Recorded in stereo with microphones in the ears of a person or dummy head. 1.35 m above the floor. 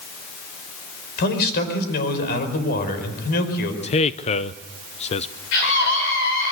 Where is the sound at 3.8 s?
35° left (ahead or behind), 0.7 m.